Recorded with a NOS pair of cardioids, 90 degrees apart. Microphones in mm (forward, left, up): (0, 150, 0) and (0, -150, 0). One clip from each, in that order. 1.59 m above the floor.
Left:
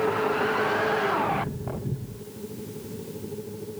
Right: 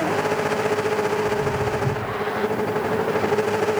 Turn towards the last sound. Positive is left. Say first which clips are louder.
# right 7 dB
turn(degrees=-45)